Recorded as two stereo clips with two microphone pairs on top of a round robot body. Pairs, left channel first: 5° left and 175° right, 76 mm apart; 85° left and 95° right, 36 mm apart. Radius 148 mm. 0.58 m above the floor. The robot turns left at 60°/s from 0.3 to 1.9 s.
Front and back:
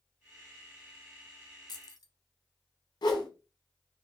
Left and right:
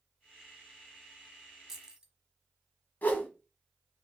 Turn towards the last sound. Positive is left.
turn(degrees=45)